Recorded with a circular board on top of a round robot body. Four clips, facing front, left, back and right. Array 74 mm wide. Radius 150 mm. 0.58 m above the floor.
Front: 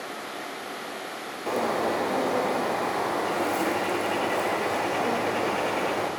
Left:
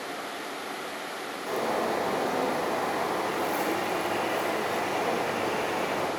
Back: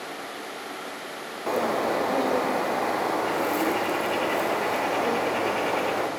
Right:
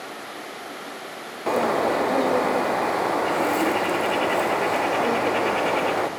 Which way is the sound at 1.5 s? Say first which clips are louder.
Right 7 dB, back 1 dB; 100° right.